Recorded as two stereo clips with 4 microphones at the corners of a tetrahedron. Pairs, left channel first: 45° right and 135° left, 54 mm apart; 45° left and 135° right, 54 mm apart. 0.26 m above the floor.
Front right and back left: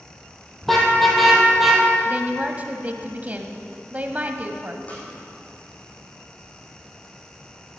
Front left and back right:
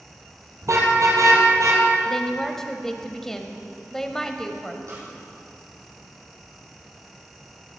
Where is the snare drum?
105° right, 5 m.